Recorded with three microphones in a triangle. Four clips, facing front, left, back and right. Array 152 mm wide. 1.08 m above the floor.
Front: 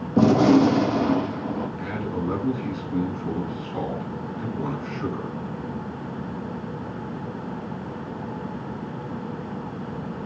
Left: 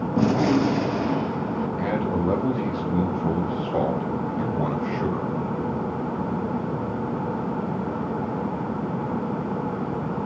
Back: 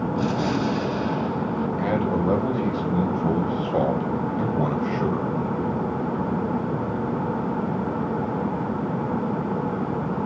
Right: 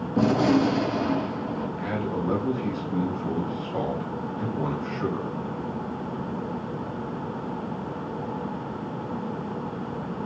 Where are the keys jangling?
I don't hear keys jangling.